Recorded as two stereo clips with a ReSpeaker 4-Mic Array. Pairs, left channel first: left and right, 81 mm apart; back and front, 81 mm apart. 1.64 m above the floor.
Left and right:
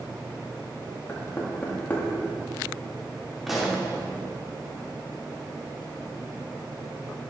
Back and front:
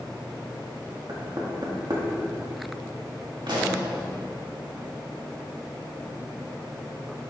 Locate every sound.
1.1 s knocking: 25° left, 2 m
3.5 s a pop: 5° right, 2.5 m